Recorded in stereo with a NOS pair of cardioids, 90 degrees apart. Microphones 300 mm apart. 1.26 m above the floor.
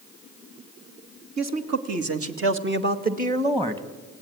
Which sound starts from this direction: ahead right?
A man speaking, at 1.4 s.